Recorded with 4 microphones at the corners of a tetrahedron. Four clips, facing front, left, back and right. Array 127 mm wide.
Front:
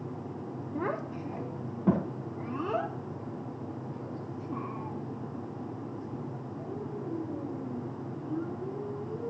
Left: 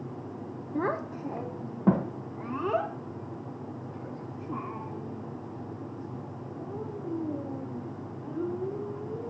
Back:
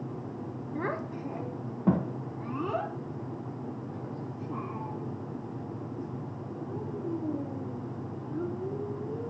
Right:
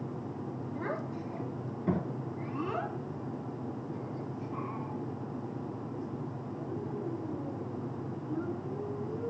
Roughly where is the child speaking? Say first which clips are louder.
Left 8 dB, even; left.